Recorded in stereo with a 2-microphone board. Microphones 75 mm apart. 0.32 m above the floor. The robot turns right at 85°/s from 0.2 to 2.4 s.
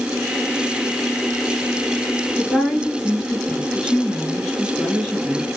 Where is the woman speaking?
5° left (ahead or behind), 4.5 m.